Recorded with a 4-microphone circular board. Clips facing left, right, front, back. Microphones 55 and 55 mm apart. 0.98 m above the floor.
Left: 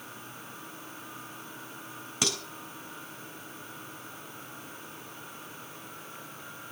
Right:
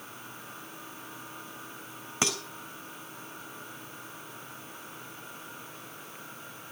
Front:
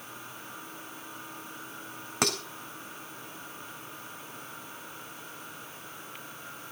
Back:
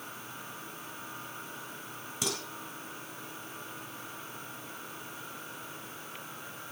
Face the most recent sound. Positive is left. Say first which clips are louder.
# right 2 dB, front 7 dB
turn(degrees=-30)